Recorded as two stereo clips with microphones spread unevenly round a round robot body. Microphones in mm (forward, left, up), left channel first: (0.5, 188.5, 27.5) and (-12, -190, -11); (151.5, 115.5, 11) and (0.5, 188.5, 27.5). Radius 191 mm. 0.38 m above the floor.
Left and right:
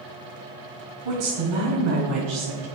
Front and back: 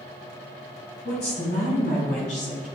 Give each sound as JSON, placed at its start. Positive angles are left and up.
{"t": 1.1, "sound": "a woman speaking", "azimuth_deg": -90, "distance_m": 3.0}